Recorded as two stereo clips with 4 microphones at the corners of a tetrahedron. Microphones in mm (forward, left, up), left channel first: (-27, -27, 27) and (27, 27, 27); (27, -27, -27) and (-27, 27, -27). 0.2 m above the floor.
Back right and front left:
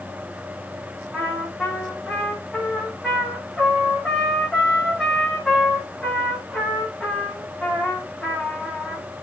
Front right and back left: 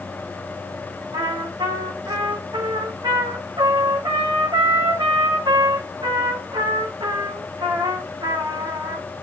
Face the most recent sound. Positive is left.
turn(degrees=140)